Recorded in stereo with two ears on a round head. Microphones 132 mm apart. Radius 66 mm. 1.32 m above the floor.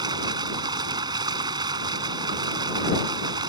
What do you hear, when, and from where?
0.0 s running water: 30° right (ahead or behind)